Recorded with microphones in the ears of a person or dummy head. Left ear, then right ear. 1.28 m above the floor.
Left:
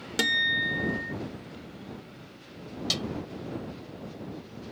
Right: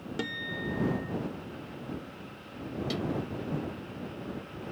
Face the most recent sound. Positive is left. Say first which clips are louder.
# left 7 dB
turn(degrees=50)  # may be behind; listen again after turning